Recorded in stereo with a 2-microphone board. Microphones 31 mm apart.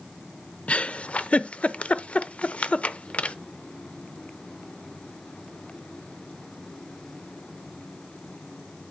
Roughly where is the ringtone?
I don't hear a ringtone.